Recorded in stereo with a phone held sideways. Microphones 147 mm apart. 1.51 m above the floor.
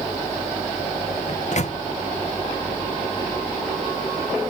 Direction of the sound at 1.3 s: 55° left (ahead or behind).